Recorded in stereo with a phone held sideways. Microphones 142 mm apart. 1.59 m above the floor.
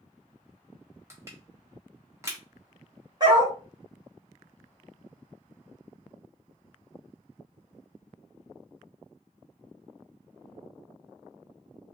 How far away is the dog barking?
About 1.8 m.